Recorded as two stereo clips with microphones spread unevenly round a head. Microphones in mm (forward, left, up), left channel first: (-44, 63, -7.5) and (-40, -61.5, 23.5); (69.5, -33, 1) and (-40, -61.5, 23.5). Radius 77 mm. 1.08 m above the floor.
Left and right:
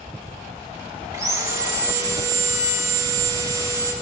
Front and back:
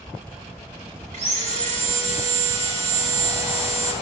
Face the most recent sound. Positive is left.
turn(degrees=-155)